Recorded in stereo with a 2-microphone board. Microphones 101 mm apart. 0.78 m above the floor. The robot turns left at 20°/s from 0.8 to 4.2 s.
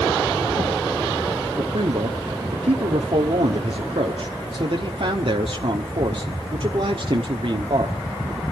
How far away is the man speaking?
About 1.3 m.